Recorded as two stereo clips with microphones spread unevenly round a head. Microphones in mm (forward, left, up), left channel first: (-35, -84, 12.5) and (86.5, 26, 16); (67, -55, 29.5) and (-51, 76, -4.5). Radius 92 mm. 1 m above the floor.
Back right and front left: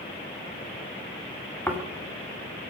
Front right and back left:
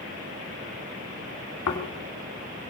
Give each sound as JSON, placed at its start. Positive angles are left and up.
{"t": 1.7, "sound": "snoring", "azimuth_deg": -60, "distance_m": 2.5}